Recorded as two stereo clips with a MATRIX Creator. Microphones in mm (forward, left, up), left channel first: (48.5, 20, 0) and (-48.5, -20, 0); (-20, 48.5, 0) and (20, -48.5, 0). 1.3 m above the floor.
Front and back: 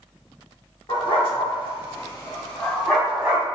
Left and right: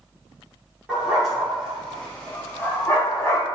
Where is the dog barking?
10° left, 1.3 m; by 3.5 s 140° left, 0.9 m.